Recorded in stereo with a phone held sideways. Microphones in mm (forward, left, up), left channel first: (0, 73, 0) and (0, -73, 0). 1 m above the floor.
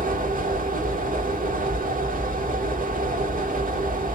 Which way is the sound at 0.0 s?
70° right (ahead or behind).